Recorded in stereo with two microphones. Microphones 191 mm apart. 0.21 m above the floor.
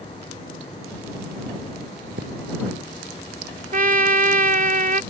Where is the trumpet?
50° right (ahead or behind).